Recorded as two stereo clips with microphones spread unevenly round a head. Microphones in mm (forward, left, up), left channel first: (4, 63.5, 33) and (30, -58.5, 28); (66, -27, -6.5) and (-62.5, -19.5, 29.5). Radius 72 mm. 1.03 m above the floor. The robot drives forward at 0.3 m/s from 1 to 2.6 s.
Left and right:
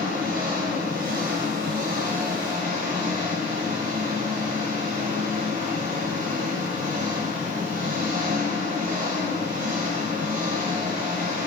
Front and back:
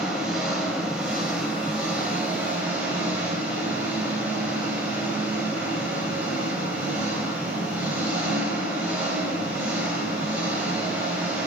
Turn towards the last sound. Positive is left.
turn(degrees=-105)